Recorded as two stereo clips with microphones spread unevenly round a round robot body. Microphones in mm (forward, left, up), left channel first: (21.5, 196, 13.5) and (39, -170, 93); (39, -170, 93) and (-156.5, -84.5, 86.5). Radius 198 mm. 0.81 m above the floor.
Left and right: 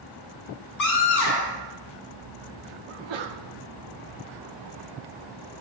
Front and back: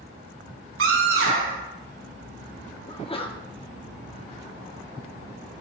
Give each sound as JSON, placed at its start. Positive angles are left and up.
{"t": 0.8, "sound": "a scream", "azimuth_deg": 135, "distance_m": 7.5}
{"t": 2.9, "sound": "a sneeze", "azimuth_deg": -90, "distance_m": 1.6}